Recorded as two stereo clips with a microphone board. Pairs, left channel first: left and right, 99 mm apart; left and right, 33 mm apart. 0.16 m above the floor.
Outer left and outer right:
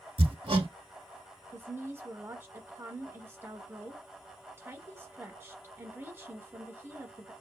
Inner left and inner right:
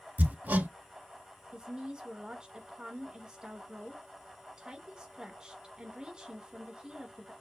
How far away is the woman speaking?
About 1.3 m.